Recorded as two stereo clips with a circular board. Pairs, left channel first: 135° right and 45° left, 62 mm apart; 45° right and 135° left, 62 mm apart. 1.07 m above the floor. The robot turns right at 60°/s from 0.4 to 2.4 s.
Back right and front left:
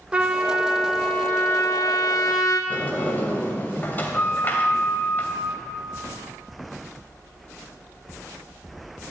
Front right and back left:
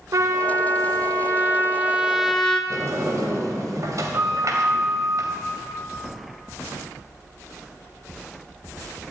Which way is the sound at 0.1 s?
115° left.